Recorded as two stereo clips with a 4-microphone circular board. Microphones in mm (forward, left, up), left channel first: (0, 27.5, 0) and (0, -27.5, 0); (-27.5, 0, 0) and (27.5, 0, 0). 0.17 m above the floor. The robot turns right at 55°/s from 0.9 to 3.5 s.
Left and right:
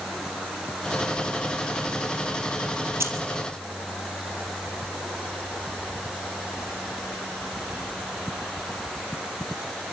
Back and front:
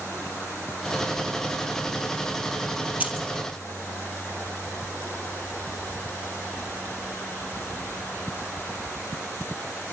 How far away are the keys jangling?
About 3 m.